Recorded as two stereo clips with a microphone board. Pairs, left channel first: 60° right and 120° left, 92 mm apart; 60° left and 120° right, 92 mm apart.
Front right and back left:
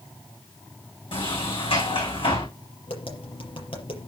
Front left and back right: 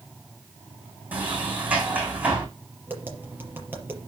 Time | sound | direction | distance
1.1 | a sliding door | 45° right | 6.5 m
2.9 | tapping | 55° right | 5 m